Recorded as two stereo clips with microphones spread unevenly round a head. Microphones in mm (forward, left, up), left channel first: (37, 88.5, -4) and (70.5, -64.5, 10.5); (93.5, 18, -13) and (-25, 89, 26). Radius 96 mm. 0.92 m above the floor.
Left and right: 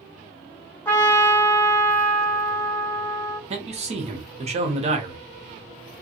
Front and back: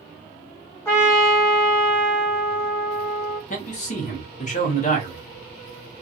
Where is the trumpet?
25° left, 1.9 m.